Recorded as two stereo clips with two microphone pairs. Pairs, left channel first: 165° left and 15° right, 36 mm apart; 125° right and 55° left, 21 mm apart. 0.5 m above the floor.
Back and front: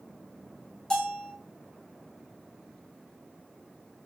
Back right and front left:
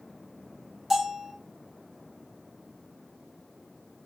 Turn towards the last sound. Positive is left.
turn(degrees=110)